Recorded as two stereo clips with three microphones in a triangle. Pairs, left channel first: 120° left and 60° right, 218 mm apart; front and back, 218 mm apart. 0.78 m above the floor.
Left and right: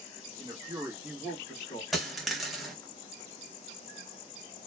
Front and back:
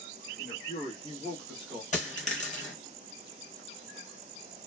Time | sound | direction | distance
0.4 | a man speaking | 5° right | 1.2 m
1.9 | a dropped coin | 30° left | 0.7 m